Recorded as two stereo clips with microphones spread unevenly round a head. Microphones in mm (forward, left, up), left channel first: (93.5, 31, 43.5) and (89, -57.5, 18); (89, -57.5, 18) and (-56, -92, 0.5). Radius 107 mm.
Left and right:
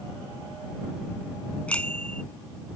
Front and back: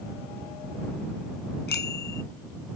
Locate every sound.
1.7 s a bicycle bell: 15° left